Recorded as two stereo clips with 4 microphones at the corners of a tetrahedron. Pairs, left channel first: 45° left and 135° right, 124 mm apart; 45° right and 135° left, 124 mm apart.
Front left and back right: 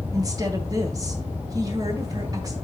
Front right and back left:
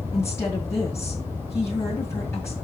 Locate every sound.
0.1 s a woman speaking: 100° right, 1.9 m